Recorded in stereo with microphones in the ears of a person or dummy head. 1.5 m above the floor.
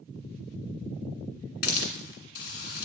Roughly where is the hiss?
Left.